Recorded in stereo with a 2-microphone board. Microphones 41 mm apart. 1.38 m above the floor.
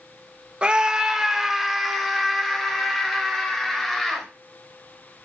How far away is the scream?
About 1.2 m.